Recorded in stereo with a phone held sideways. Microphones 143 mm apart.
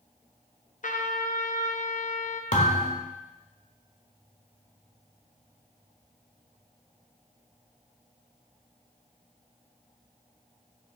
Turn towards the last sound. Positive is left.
turn(degrees=70)  # may be behind; listen again after turning